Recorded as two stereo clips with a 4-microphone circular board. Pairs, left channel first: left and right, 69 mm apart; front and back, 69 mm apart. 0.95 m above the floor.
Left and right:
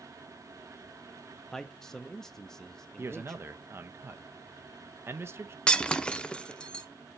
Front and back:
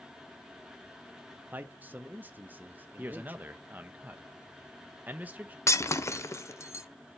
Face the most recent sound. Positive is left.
turn(degrees=20)